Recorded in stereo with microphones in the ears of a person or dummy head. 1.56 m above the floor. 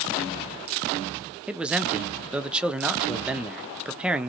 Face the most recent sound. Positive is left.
turn(degrees=-10)  # may be behind; listen again after turning